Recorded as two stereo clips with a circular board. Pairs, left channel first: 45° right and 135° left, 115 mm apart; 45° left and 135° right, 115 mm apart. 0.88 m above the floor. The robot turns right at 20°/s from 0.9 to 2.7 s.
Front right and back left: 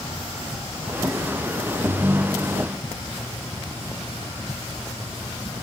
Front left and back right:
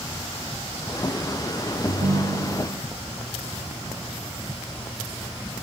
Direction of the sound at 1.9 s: 155° right.